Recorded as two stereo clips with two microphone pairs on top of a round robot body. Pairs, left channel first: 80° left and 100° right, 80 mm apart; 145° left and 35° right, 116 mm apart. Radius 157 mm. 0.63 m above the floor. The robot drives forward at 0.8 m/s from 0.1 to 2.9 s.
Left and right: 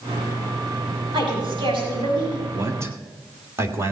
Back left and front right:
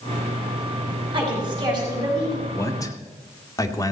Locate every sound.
1.1 s a woman speaking: 85° right, 5.5 m; by 2.4 s 95° right, 5.5 m
2.5 s a man speaking: 150° right, 1.6 m; by 3.9 s 155° right, 1.8 m